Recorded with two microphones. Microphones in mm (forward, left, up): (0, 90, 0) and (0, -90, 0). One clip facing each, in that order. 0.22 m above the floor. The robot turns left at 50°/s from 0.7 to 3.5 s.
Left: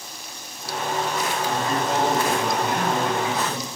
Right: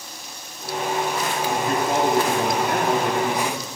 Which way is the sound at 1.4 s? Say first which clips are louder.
Right 3 dB; 35° right.